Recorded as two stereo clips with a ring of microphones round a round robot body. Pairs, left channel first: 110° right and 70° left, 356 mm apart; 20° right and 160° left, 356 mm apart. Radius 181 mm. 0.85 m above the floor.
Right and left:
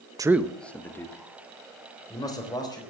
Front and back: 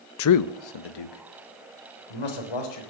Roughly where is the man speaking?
Ahead.